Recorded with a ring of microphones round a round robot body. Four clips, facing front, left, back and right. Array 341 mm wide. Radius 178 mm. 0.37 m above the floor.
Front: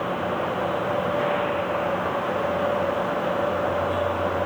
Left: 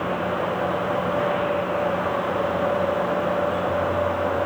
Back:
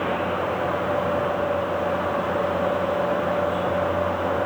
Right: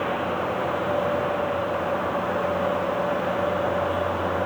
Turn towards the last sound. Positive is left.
No sound to turn to.